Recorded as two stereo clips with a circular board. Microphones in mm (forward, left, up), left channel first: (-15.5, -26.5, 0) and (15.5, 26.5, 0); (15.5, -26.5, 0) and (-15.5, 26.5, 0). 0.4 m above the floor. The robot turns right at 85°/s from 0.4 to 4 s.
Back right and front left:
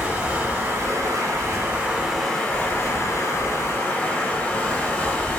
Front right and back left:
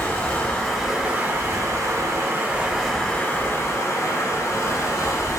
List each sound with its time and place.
0.0 s running water: 5° left, 1.0 m; by 5.4 s 50° right, 1.0 m